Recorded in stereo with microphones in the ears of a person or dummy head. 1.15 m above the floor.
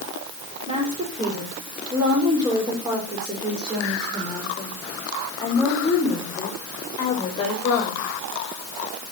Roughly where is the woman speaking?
Right.